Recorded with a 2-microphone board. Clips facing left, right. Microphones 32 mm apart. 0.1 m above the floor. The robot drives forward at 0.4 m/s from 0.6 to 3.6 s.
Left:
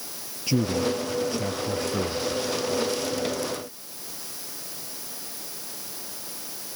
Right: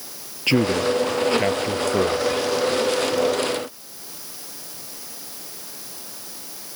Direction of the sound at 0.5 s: 50° right (ahead or behind).